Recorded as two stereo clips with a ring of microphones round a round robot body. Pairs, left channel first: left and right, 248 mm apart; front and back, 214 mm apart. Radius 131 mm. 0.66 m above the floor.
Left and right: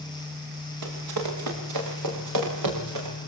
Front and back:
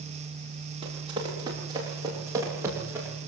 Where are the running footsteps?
110° right, 9.5 m; by 3.1 s 100° right, 11 m.